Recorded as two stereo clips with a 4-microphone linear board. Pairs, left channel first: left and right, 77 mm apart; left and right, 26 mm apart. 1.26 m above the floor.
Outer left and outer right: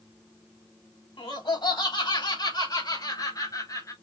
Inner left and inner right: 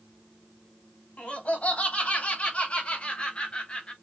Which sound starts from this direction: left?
Laughter, at 1.2 s.